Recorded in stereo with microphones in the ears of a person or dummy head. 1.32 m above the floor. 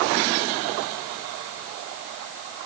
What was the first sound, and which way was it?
Only background noise.